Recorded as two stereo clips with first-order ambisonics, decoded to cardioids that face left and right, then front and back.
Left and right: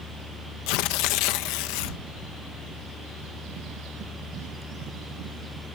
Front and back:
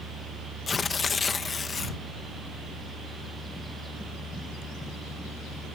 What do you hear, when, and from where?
0.7 s tearing paper: 70° left